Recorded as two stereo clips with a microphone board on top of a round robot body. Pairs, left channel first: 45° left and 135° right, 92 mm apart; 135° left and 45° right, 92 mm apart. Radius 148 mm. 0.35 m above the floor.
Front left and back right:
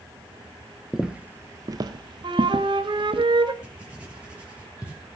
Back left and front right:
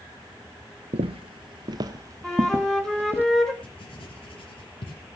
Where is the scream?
I don't hear a scream.